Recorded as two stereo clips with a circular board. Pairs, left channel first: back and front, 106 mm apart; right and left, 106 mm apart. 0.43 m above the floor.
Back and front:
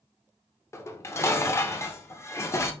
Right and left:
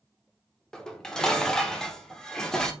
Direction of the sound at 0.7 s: 165° right.